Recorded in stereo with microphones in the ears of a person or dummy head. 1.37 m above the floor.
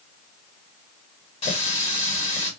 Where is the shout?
No shout in this recording.